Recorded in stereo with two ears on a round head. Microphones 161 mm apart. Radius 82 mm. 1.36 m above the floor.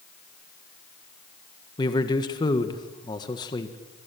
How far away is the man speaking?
About 1.7 m.